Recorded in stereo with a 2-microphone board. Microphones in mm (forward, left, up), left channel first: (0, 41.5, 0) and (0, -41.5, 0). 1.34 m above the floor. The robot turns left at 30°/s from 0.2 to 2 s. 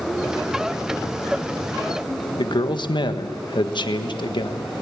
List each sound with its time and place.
2.4 s a man speaking: 65° left (ahead or behind), 1.5 m